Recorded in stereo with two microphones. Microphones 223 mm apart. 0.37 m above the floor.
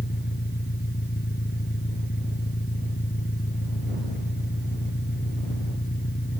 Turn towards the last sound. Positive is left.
turn(degrees=50)  # may be behind; listen again after turning